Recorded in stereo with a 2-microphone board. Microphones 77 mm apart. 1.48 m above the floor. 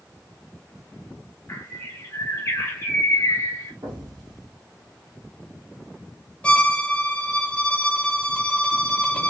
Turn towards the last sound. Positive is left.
turn(degrees=15)  # may be behind; listen again after turning